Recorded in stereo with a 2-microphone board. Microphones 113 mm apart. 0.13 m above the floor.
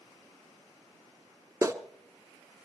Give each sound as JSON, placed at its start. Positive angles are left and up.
{"t": 1.6, "sound": "a clap", "side_deg": -30, "distance_m": 1.2}